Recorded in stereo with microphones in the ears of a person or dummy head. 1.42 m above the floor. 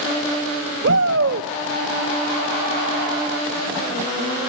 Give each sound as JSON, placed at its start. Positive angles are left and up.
{"t": 0.8, "sound": "a shout", "side_deg": -70, "distance_m": 0.7}